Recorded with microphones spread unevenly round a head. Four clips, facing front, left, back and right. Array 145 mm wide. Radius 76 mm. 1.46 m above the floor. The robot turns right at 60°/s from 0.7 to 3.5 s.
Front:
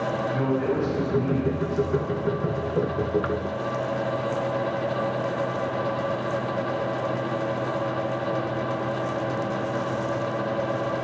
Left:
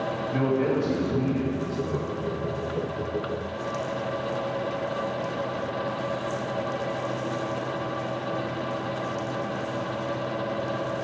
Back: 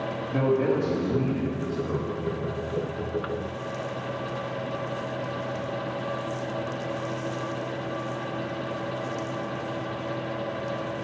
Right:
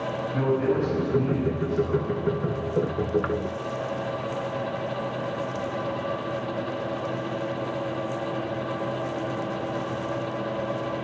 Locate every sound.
0.3 s a man speaking: 160° left, 1.9 m; by 2.1 s 120° right, 1.9 m